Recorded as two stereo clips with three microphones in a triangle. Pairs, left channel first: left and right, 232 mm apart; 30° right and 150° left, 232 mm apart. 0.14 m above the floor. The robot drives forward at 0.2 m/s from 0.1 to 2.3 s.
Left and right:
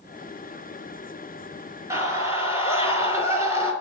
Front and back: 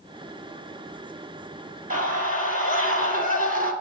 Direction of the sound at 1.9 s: 165° right.